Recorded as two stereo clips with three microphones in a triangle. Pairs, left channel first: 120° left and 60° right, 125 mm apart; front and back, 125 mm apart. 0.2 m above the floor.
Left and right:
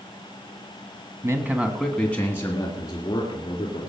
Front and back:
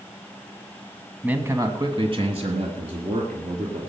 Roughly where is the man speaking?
Right.